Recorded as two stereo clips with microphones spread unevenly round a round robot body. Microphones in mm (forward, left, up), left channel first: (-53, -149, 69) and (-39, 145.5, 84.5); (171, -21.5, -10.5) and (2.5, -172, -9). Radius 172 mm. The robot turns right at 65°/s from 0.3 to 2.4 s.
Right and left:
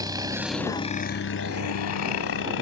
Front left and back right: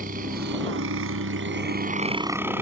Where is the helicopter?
165° left; by 2.6 s 60° right.